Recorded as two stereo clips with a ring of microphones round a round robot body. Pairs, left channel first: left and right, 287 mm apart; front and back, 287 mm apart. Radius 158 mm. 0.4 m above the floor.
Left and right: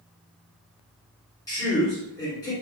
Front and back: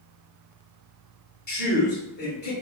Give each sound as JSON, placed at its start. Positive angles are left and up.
{"t": 1.5, "sound": "a man speaking", "azimuth_deg": 20, "distance_m": 1.6}